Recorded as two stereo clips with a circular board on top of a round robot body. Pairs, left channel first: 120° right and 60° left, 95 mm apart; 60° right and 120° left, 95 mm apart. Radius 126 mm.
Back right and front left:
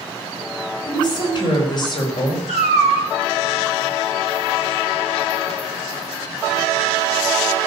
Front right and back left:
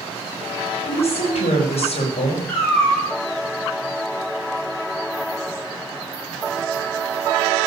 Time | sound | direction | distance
0.8 | a woman speaking | 75° right | 4.5 m
2.5 | a cat meowing | 135° right | 6 m